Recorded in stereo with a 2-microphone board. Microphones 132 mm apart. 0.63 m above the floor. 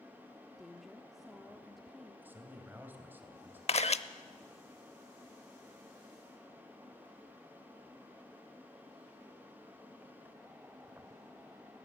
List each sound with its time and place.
0.6 s a woman speaking: centre (ahead or behind), 1.2 m
2.2 s a man speaking: 15° right (ahead or behind), 3 m
3.7 s a camera shutter: 55° left (ahead or behind), 0.7 m